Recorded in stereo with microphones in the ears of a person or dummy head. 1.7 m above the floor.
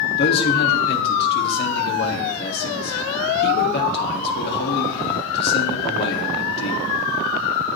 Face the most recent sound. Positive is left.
turn(degrees=65)  # may be behind; listen again after turning